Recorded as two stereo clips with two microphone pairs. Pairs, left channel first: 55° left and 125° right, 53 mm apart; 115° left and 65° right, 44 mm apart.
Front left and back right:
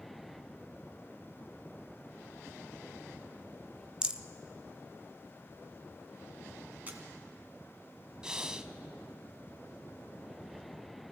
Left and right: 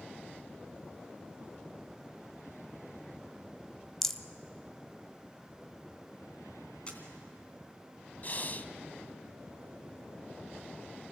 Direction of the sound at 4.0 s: Straight behind.